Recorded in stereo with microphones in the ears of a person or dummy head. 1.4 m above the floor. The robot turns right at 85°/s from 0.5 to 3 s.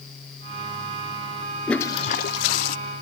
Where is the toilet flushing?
Straight ahead, 0.5 m; by 2.8 s 95° left, 0.5 m.